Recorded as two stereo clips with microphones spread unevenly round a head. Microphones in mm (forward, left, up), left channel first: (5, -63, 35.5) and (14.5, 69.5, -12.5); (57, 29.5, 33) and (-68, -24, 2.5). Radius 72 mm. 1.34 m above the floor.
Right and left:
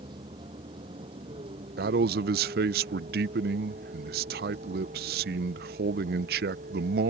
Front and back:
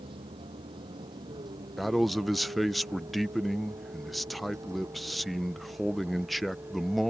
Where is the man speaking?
110° left.